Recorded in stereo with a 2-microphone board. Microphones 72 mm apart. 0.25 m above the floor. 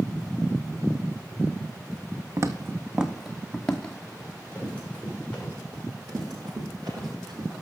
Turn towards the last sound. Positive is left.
turn(degrees=-90)